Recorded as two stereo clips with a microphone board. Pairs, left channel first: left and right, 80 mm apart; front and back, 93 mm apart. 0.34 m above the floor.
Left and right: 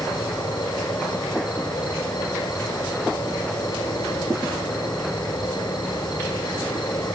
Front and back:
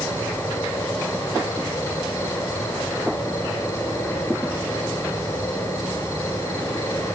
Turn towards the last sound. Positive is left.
turn(degrees=60)